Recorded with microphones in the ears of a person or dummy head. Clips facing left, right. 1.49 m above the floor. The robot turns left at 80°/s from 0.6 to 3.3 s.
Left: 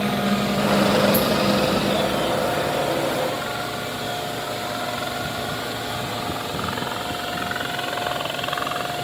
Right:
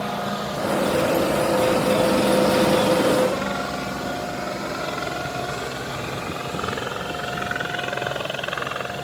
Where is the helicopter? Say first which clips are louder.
Left 5 dB; 25° left (ahead or behind); by 9.1 s 30° right (ahead or behind).